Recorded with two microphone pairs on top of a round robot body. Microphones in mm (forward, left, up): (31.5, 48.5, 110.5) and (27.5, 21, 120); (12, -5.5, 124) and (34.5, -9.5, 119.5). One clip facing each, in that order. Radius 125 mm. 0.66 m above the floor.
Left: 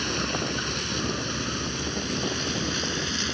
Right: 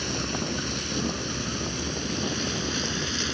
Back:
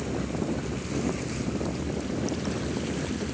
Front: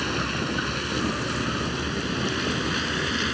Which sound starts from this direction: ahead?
A vehicle, at 0.0 s.